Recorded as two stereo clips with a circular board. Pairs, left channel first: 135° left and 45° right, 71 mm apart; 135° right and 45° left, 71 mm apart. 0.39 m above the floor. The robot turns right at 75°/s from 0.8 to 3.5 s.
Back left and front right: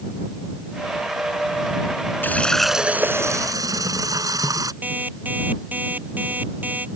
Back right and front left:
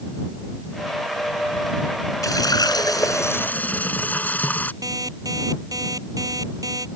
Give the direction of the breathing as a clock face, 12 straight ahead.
No breathing in this recording.